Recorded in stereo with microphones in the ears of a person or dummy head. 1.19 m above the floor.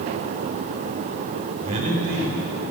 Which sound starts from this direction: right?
A man speaking, at 1.6 s.